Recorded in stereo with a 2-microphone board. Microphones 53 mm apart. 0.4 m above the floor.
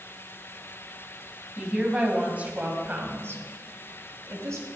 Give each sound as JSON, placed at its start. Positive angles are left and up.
{"t": 1.6, "sound": "a woman speaking", "side_deg": -15, "distance_m": 2.5}